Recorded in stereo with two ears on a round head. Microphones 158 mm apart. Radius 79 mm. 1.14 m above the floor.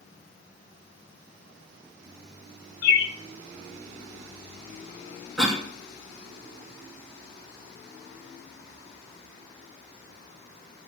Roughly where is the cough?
Centre.